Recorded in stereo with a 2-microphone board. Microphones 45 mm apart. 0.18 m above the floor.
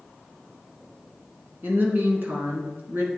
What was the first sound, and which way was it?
A woman speaking, 45° right (ahead or behind).